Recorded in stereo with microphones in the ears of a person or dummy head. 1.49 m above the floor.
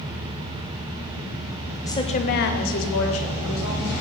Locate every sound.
1.8 s a woman speaking: 15° left (ahead or behind), 0.5 m; by 4.0 s 80° left, 1.7 m